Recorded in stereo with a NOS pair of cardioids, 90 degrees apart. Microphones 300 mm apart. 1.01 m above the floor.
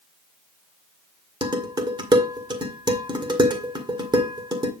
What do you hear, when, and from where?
1.4 s dishes clattering: 15° right, 1.9 m